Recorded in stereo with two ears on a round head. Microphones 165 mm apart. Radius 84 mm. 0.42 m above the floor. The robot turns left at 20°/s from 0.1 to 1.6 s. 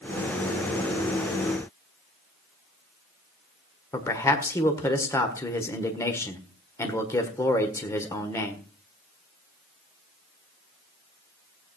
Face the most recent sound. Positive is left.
turn(degrees=15)  # may be behind; listen again after turning